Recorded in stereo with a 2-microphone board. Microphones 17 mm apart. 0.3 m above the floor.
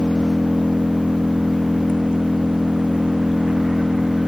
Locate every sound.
0.0 s an engine running: 90° right